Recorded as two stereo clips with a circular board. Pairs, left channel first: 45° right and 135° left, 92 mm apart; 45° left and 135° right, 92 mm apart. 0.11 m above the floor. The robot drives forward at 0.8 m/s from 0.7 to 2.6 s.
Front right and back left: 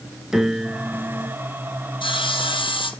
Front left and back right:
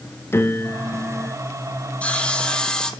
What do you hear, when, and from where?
0.3 s a piano: 55° left, 1.2 m; by 1.4 s 115° left, 1.2 m
2.0 s sawing: 30° right, 2.5 m; by 2.9 s 35° right, 2 m